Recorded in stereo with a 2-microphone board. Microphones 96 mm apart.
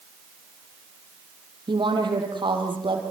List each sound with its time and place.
1.7 s a woman speaking: 55° right (ahead or behind), 6 m